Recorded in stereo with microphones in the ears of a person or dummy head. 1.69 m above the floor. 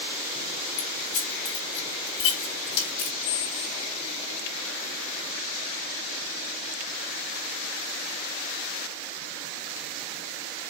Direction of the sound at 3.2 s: 55° left (ahead or behind).